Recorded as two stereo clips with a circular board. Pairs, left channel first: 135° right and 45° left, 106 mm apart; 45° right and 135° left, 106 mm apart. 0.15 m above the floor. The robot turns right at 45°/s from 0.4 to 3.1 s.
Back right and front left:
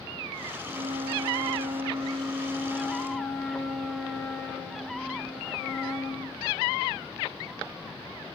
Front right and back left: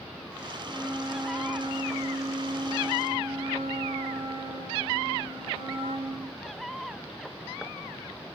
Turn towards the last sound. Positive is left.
turn(degrees=140)